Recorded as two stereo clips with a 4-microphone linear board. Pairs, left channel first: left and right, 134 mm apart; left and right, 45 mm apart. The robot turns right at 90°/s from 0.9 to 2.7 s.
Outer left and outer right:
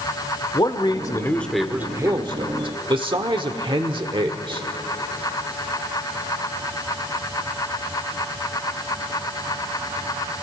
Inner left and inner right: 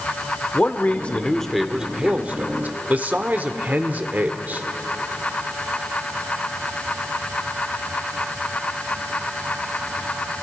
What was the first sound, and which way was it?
A man speaking, 120° left.